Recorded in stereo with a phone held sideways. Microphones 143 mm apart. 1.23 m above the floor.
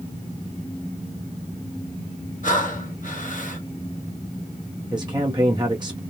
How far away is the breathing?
About 0.9 m.